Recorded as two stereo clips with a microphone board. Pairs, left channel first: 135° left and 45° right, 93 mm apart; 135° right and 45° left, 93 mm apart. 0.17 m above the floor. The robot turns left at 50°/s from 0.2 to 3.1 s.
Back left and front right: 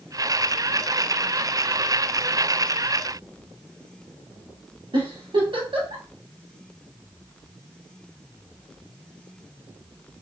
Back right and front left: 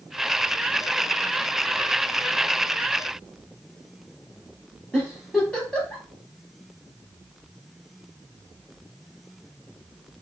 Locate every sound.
4.9 s a giggle: 55° right, 2 m